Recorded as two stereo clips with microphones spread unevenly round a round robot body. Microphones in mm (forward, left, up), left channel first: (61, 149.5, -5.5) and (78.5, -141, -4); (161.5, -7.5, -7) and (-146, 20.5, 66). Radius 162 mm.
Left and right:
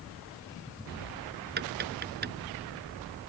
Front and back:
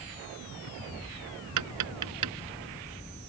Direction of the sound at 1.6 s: 150° right.